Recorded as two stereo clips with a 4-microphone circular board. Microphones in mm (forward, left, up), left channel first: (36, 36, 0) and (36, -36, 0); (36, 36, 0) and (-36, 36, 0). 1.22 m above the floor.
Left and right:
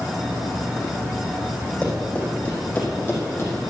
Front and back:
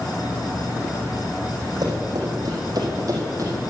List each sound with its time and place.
1.8 s running footsteps: 160° left, 4 m; by 3.5 s 140° left, 3 m